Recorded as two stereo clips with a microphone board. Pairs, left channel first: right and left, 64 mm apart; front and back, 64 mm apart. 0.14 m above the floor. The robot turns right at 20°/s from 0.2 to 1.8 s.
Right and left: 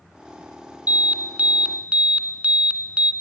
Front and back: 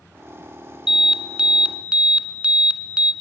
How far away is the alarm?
About 1.2 m.